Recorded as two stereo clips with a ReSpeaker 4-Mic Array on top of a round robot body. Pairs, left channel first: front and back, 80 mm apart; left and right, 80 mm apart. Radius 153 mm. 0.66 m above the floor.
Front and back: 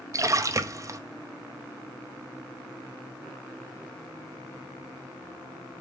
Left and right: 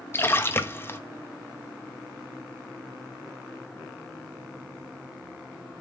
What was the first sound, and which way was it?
A splash, 145° left.